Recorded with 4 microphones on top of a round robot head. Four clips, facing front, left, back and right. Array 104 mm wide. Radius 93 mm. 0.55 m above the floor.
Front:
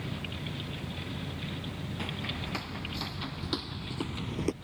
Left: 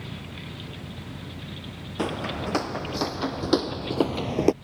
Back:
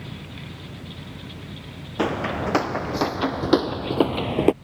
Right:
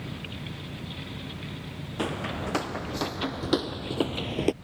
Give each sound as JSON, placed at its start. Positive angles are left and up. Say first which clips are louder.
{"t": 2.0, "sound": "footsteps", "louder": "left 2 dB, back 18 dB", "azimuth_deg": 165}